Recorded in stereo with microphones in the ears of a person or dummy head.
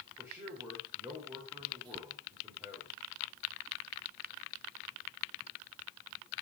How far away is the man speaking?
About 4 m.